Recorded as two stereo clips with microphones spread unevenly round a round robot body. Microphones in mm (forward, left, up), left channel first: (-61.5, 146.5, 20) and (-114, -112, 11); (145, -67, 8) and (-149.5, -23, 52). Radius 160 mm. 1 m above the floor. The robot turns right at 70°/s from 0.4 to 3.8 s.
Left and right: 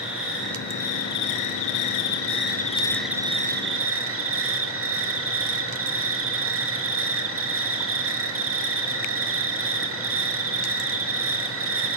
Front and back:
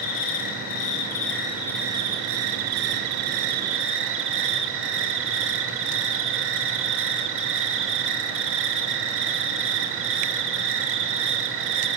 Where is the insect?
15° right, 6 m; by 12.0 s 140° right, 6 m.